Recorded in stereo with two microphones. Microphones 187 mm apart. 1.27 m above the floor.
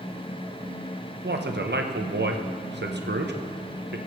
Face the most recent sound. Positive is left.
turn(degrees=-80)